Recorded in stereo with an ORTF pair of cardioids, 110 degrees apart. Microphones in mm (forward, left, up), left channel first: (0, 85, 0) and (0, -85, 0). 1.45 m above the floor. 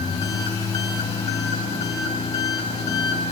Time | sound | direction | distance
0.0 | an engine running | 35° left | 4.5 m